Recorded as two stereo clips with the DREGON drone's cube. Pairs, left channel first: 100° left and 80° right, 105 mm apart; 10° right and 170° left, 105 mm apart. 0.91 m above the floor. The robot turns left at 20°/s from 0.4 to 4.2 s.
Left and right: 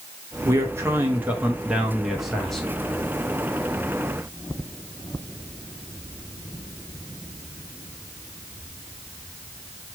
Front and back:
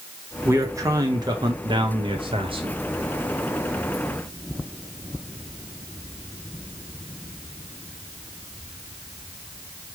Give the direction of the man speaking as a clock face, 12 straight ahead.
4 o'clock.